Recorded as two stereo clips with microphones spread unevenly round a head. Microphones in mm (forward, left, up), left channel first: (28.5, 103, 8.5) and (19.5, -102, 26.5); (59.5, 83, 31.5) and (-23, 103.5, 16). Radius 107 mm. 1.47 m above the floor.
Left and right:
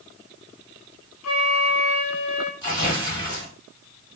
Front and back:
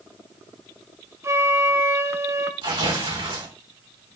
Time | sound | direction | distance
1.2 | a flute | 105° left | 0.5 m
2.6 | tearing paper | 160° left | 2 m